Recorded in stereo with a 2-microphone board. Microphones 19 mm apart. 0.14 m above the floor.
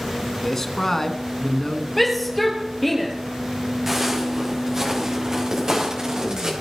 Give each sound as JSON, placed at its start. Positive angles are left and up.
{"t": 0.4, "sound": "a man speaking", "side_deg": 20, "distance_m": 1.3}
{"t": 2.0, "sound": "a shout", "side_deg": 5, "distance_m": 3.5}
{"t": 3.9, "sound": "footsteps", "side_deg": -15, "distance_m": 5.5}